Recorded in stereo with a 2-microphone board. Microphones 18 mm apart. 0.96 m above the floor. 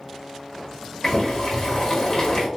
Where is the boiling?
35° left (ahead or behind), 1.3 m.